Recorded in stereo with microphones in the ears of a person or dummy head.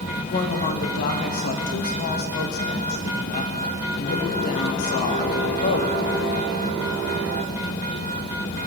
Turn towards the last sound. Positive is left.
turn(degrees=50)  # may be behind; listen again after turning